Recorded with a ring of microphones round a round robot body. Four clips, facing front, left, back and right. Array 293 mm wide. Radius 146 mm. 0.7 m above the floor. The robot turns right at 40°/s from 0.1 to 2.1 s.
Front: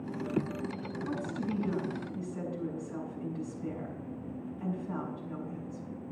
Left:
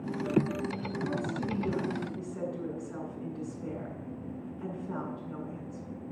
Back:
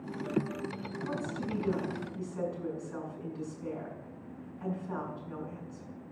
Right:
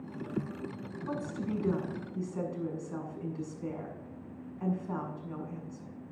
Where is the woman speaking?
115° right, 7 m; by 6.0 s 75° right, 7 m.